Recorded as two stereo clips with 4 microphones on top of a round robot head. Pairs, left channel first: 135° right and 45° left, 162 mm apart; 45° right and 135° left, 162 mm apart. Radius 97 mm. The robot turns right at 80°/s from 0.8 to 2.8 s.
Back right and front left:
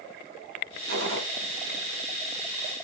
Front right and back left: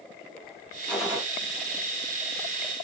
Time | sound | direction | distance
0.9 | a gunshot | 35° left | 3.5 m